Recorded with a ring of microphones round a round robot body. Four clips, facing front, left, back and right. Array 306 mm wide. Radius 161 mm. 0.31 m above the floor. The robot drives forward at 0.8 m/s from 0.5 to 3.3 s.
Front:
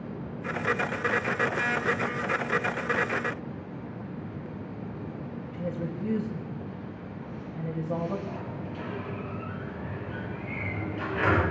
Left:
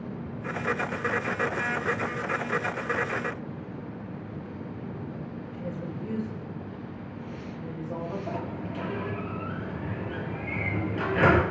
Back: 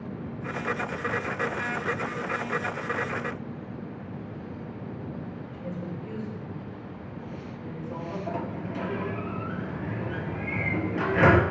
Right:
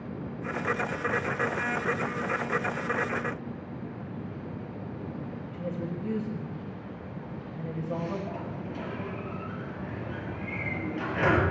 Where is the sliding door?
150° left, 3.5 m.